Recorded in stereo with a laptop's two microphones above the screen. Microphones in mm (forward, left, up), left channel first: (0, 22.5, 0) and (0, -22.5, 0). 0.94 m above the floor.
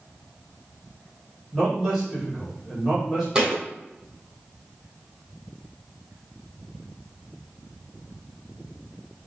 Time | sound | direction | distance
1.5 | a man speaking | 5° right (ahead or behind) | 1.9 m
3.4 | a thud | 20° right (ahead or behind) | 1.2 m